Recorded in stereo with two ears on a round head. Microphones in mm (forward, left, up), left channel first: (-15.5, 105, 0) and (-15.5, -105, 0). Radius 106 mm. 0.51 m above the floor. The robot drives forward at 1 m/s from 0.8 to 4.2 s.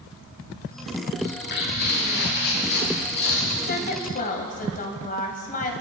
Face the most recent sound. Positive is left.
turn(degrees=40)  # may be behind; listen again after turning